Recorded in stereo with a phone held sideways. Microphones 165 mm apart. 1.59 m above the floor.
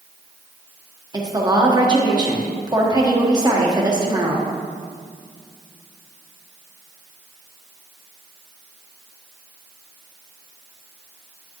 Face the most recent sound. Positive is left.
turn(degrees=-25)  # may be behind; listen again after turning